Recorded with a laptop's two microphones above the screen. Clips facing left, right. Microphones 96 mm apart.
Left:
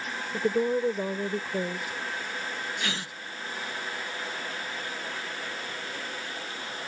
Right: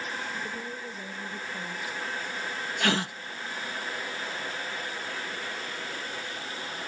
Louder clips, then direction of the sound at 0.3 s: Left 11 dB; 70° left (ahead or behind).